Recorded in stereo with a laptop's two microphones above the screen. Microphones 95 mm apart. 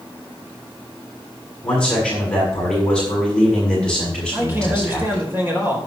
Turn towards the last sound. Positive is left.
turn(degrees=-25)  # may be behind; listen again after turning